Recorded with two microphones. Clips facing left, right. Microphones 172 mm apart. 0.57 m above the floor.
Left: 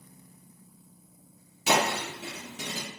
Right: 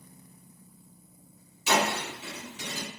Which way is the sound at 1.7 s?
75° left (ahead or behind).